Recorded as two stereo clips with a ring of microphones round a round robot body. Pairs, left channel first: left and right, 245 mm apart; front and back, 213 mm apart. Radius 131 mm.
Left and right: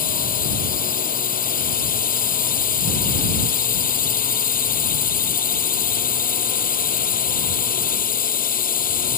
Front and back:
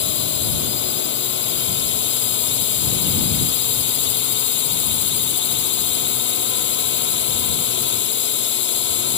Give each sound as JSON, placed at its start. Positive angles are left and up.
{"t": 0.0, "sound": "a drone", "azimuth_deg": 35}